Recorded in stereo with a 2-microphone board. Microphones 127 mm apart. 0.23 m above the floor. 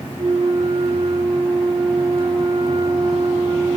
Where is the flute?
45° right (ahead or behind), 5 m.